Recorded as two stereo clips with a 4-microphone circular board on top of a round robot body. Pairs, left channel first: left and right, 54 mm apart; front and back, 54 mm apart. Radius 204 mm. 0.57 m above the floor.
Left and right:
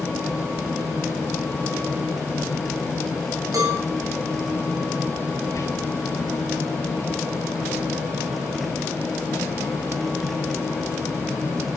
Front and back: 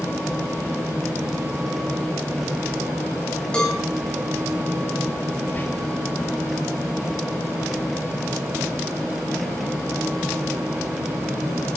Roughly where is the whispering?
Ahead left.